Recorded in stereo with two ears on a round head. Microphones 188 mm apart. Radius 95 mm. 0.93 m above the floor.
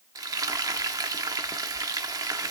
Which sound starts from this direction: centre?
Frying, at 0.1 s.